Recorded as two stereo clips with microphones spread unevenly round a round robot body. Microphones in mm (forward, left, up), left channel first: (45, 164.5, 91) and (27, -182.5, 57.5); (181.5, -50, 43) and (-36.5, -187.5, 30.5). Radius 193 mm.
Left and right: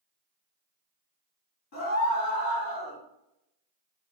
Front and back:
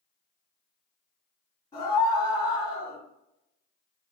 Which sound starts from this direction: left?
A scream, at 1.7 s.